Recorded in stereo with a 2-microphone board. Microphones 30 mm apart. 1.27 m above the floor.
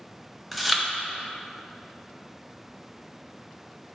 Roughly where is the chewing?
Centre.